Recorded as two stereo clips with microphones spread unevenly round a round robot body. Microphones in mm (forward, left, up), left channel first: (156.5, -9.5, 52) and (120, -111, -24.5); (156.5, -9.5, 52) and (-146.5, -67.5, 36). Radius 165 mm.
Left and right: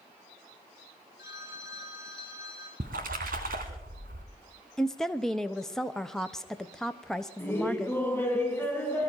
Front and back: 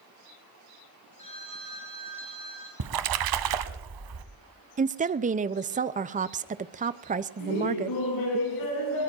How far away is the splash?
About 1.0 m.